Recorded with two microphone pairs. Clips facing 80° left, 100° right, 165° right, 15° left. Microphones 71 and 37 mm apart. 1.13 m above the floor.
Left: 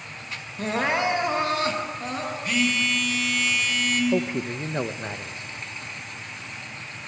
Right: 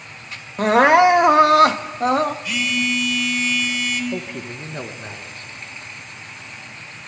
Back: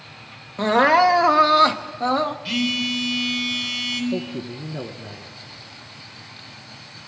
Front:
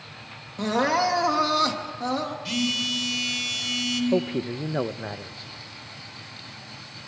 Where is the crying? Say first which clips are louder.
Right 12 dB, back 7 dB; 110° right, 1.2 m.